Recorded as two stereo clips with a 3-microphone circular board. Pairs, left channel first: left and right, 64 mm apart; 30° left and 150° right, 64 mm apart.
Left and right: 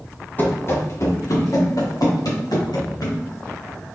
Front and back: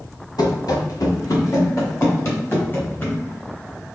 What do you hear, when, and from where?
0.4 s running footsteps: 30° left, 1.5 m; by 3.2 s 90° left, 3.5 m